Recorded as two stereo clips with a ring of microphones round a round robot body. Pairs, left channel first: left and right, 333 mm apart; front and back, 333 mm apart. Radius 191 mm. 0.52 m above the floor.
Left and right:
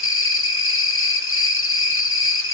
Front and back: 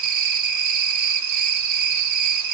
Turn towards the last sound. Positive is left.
turn(degrees=140)